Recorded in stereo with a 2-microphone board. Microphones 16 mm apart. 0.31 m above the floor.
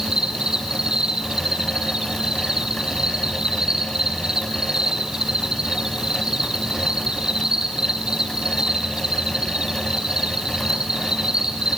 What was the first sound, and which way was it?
An insect, 60° right (ahead or behind).